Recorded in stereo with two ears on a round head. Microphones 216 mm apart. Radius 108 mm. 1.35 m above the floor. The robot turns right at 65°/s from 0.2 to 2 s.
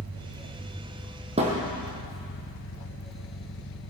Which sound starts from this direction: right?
A thud, at 1.4 s.